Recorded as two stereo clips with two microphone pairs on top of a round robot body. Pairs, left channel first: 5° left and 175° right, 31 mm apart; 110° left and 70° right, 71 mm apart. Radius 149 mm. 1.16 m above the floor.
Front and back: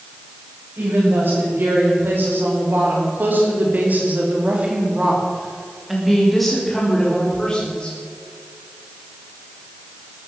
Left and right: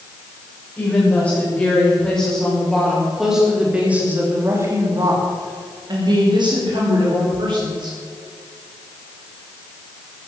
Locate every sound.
0.8 s a woman speaking: 175° right, 7 m; by 8.0 s 60° right, 5.5 m